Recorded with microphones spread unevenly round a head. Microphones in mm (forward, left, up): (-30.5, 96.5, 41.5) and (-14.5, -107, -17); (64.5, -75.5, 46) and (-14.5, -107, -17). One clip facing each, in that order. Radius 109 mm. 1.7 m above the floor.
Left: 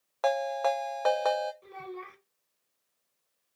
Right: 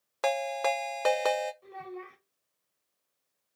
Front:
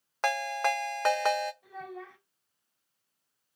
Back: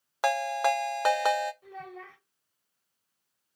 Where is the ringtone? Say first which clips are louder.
Left 2 dB, back 3 dB; 25° right, 0.7 m.